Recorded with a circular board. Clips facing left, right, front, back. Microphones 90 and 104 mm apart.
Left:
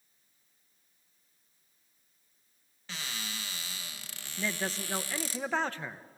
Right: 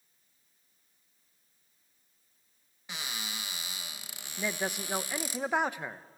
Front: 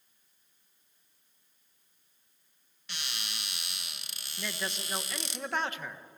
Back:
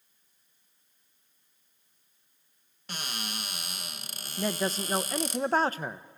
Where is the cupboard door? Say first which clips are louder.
Right 1 dB, back 6 dB; 160° right, 0.9 m.